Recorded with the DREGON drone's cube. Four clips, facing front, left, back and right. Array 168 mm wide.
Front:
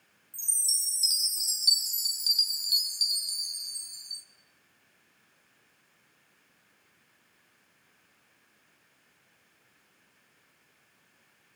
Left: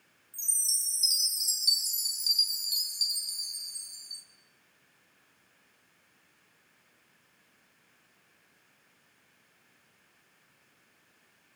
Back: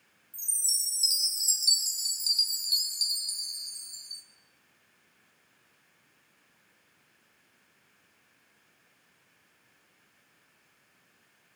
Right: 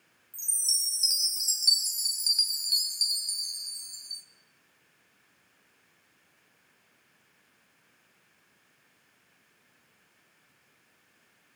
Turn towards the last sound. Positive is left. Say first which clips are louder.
# right 3 dB, front 1 dB
turn(degrees=-60)